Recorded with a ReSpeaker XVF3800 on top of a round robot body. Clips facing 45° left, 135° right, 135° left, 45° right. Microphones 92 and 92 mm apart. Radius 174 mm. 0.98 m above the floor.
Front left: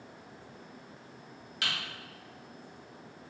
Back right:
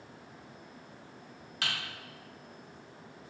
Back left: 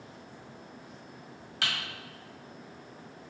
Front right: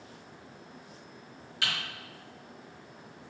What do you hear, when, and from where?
1.6 s typing on a keyboard: 175° left, 1.2 m